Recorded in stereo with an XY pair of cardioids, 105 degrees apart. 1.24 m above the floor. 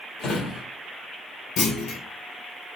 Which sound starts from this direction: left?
A drawer, at 0.2 s.